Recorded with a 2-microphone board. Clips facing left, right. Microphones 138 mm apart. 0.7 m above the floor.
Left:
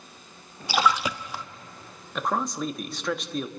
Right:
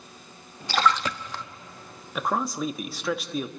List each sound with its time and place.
0.7 s a splash: 10° left (ahead or behind), 0.5 m
2.1 s a man speaking: 5° right (ahead or behind), 0.9 m